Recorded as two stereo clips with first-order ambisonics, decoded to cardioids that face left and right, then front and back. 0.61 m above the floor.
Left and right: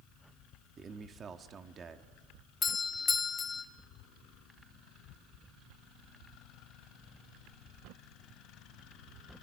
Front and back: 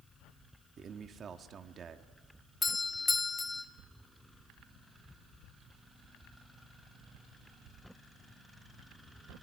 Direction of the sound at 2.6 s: 55° left.